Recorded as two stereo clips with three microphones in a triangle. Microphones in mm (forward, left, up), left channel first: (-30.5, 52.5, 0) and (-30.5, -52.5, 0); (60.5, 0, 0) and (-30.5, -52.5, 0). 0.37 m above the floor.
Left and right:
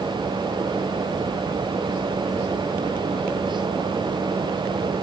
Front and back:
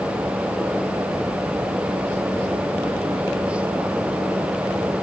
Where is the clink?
No clink in this recording.